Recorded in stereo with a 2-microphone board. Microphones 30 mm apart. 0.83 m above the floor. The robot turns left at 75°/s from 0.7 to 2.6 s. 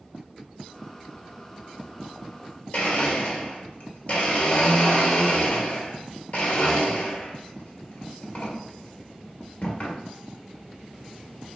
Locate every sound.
2.7 s a blender: 45° left (ahead or behind), 1.1 m